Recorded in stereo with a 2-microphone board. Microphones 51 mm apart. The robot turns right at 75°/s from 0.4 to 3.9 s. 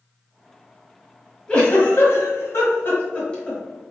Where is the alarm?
No alarm in this recording.